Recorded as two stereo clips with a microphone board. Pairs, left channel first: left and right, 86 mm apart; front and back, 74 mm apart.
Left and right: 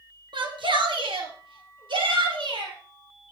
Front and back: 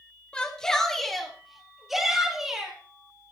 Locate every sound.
0.3 s a shout: 75° right, 3 m; by 2.8 s 95° right, 6.5 m